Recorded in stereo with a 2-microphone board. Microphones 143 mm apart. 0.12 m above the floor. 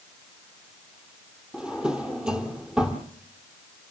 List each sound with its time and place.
1.5 s a drawer: 5° right (ahead or behind), 1.7 m